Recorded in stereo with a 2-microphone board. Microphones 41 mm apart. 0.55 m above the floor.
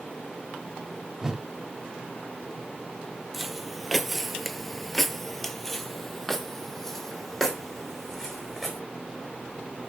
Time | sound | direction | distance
1.2 | a whoosh | 10° right (ahead or behind) | 1.2 m
3.3 | footsteps | 5° right (ahead or behind) | 0.8 m